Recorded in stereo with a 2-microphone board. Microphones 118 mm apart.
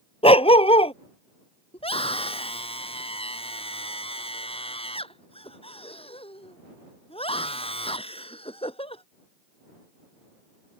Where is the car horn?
I don't hear a car horn.